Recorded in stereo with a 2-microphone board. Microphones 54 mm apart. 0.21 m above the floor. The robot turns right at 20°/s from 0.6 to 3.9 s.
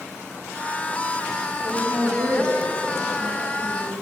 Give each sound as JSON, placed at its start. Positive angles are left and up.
{"t": 1.6, "sound": "a woman speaking", "azimuth_deg": -105, "distance_m": 2.0}